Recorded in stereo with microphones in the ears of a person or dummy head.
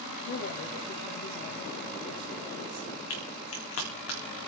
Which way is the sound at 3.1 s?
80° left.